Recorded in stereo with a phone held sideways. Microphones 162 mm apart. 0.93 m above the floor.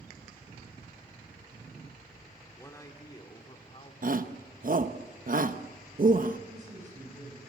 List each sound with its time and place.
2.6 s a man speaking: 15° left (ahead or behind), 2.5 m; by 3.9 s 35° left (ahead or behind), 2.5 m
4.0 s a shout: 60° right (ahead or behind), 0.9 m
6.5 s a man speaking: 50° right (ahead or behind), 7.5 m